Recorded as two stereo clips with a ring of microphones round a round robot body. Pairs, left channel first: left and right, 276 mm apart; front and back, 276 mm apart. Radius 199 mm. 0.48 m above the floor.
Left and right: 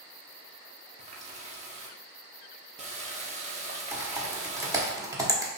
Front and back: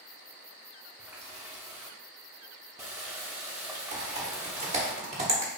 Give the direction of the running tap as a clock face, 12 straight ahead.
3 o'clock.